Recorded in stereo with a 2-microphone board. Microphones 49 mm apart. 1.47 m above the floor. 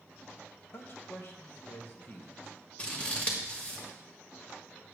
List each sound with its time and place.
0.7 s a man speaking: 50° left (ahead or behind), 1.3 m
2.8 s scissors: 25° left (ahead or behind), 1.6 m